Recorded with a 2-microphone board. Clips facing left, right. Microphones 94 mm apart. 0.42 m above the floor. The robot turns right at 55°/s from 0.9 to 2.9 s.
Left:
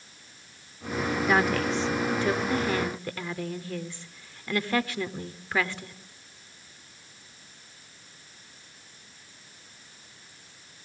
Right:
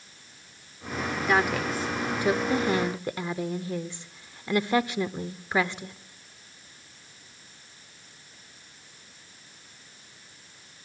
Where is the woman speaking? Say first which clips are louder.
Even; centre (ahead or behind), 0.8 m; by 6.0 s 20° right (ahead or behind), 0.8 m.